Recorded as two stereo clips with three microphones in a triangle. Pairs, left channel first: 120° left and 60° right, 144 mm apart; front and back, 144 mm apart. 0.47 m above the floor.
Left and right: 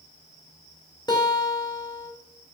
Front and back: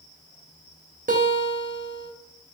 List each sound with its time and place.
1.1 s a guitar: 175° left, 0.8 m